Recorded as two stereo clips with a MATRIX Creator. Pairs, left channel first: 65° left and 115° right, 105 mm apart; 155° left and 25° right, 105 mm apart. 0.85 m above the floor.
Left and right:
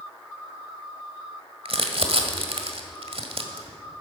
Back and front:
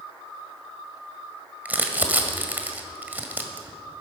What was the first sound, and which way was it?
Crumpling, 95° right.